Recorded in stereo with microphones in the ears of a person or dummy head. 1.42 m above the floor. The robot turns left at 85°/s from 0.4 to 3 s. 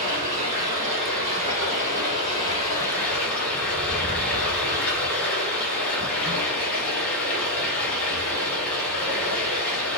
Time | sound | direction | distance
0.0 | running water | 125° right | 1.5 m